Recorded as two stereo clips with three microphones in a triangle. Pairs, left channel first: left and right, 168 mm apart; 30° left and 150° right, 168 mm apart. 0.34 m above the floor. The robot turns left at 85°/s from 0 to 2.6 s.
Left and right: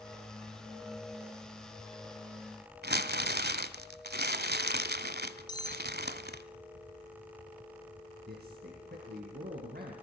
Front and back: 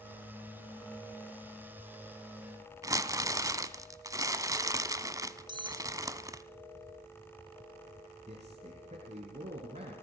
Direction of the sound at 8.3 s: 105° right.